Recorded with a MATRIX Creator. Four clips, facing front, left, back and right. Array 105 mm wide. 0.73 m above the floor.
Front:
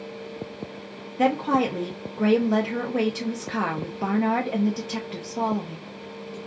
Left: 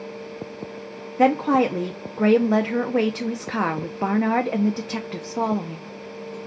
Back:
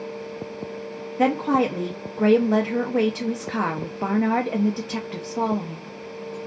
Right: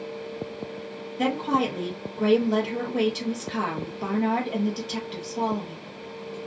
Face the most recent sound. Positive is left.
turn(degrees=100)